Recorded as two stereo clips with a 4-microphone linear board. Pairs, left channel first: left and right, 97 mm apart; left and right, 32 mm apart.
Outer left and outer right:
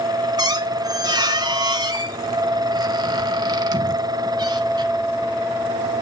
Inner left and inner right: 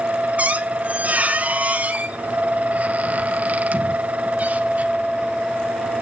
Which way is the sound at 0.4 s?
40° right (ahead or behind).